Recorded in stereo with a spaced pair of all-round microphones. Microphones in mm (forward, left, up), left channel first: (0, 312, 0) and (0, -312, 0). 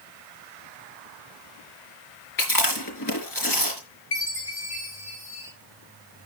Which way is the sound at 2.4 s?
30° left (ahead or behind).